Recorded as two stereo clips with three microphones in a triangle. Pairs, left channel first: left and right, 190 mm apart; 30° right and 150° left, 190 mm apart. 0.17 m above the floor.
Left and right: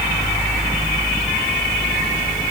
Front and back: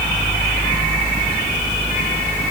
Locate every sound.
Only background noise.